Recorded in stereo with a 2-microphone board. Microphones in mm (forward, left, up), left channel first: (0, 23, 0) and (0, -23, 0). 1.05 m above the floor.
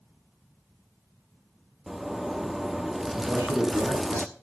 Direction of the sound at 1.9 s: 10° right (ahead or behind).